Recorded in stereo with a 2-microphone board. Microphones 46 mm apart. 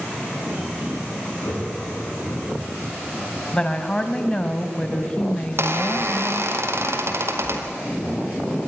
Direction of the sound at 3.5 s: 20° left (ahead or behind).